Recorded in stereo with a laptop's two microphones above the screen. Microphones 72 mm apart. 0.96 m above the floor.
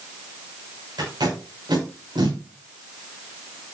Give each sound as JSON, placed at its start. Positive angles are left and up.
{"t": 1.0, "sound": "tape being pulled", "side_deg": -85, "distance_m": 7.0}